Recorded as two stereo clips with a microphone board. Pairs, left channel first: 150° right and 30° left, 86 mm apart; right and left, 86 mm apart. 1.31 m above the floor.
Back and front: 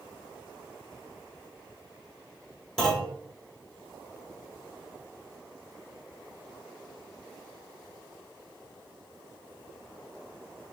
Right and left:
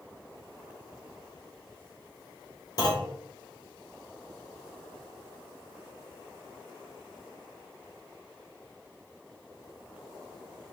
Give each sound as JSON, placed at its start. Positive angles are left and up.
{"t": 2.8, "sound": "a clunk", "azimuth_deg": -70, "distance_m": 1.3}